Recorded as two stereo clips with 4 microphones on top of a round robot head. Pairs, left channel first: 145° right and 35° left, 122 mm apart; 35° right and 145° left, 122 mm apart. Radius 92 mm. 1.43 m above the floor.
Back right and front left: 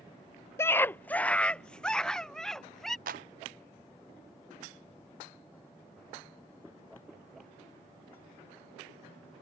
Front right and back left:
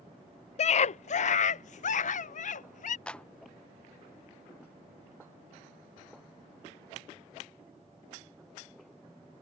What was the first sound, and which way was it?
A scream, 70° right.